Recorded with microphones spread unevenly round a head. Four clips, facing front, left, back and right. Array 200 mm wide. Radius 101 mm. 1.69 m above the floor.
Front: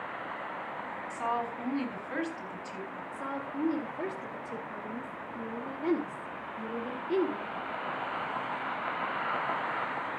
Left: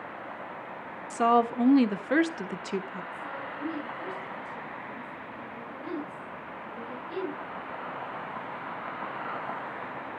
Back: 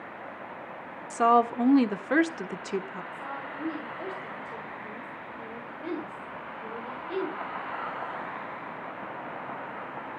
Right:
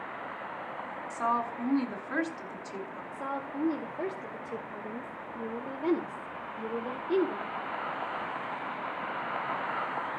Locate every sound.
1.1 s a woman speaking: 140° left, 1.2 m
3.1 s a woman speaking: 60° right, 1.8 m